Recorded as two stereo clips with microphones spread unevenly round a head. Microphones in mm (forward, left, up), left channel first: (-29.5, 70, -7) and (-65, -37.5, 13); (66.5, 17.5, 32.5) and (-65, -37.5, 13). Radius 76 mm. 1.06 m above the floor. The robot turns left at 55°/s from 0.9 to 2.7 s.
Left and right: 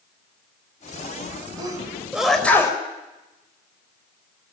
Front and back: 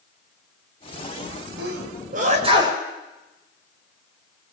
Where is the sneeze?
160° right, 6 m; by 2.8 s 135° left, 6 m.